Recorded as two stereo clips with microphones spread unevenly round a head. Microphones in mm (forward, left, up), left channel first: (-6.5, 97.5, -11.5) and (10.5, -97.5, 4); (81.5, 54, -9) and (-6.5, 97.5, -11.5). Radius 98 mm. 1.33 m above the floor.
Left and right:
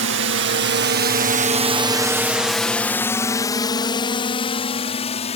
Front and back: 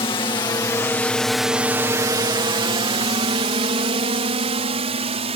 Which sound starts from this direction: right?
A drone, at 0.0 s.